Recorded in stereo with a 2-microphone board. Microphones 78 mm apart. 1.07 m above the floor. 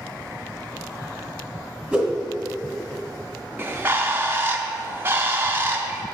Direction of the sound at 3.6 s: 25° right (ahead or behind).